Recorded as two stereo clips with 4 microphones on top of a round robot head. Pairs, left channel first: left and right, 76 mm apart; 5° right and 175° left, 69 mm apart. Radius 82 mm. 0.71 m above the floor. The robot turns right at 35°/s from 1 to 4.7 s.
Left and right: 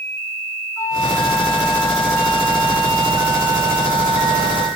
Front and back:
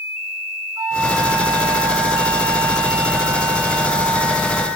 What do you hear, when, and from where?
0.8 s a flute: 140° left, 4.5 m; by 4.7 s 90° right, 4.5 m